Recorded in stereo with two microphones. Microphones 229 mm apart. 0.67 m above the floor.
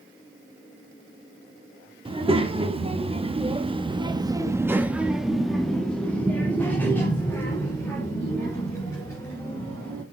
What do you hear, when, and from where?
2.0 s a child speaking: 25° right (ahead or behind), 1.3 m; by 10.0 s 15° left (ahead or behind), 3 m